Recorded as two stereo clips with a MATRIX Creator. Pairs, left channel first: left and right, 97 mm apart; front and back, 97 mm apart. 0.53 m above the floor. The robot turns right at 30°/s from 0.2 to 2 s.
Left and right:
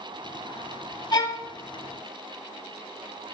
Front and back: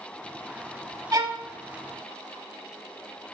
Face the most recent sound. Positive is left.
turn(degrees=155)